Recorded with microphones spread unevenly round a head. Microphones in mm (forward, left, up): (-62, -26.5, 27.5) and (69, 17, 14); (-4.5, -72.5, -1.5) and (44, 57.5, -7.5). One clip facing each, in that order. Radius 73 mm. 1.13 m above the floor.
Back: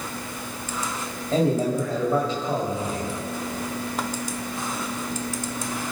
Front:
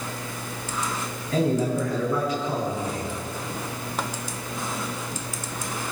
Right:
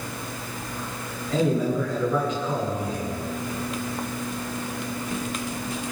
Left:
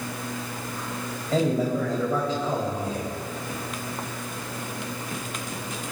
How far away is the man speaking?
About 6.5 m.